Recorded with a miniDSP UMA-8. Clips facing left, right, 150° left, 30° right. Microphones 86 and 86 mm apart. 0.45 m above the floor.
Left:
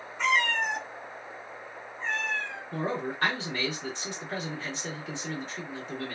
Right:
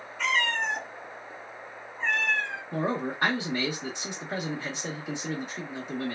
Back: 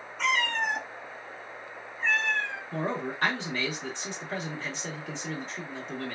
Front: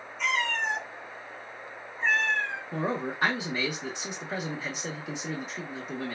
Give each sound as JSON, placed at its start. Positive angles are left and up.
{"t": 0.2, "sound": "a cat meowing", "azimuth_deg": 155, "distance_m": 0.8}
{"t": 2.7, "sound": "a man speaking", "azimuth_deg": -75, "distance_m": 0.7}